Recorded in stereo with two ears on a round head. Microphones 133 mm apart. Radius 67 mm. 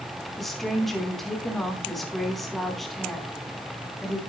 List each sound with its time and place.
0.4 s a woman speaking: centre (ahead or behind), 5 m